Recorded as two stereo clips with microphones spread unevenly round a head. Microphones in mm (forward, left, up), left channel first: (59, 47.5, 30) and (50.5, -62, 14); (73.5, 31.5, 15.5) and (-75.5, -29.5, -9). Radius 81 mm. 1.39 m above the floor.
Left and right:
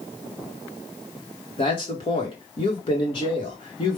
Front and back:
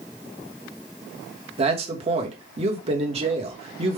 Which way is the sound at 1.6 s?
145° left.